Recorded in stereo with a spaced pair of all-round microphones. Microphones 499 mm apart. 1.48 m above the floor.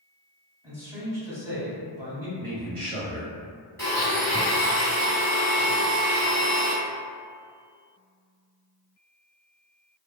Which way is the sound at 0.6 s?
5° right (ahead or behind).